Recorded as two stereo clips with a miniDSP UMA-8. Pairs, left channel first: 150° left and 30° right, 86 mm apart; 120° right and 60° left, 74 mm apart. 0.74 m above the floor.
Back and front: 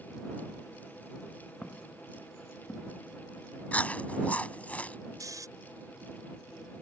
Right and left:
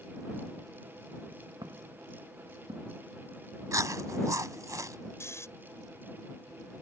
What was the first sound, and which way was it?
Footsteps, 70° left.